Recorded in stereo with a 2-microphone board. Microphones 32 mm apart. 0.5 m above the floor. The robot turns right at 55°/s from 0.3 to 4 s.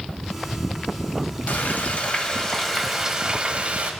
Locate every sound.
1.5 s frying: 105° left, 1.3 m; by 3.9 s 125° right, 1.3 m